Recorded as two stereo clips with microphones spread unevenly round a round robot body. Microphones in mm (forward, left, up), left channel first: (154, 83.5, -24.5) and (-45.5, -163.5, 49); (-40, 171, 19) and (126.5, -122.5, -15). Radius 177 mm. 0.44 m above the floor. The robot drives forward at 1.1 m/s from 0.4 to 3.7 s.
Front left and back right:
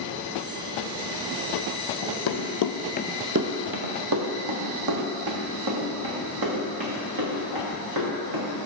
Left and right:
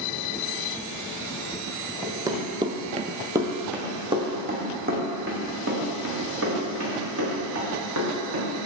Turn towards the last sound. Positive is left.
turn(degrees=-110)